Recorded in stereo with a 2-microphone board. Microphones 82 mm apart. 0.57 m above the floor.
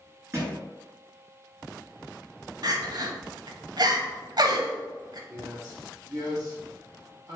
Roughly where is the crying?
Right.